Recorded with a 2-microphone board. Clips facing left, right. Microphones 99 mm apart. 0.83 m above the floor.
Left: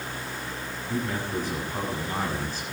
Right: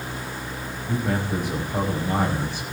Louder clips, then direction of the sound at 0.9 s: Right 4 dB; 70° right (ahead or behind).